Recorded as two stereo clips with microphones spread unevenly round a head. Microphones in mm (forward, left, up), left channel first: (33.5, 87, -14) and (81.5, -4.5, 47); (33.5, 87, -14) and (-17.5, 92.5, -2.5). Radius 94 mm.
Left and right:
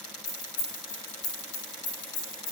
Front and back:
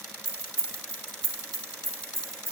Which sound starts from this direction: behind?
Keys jangling, at 0.2 s.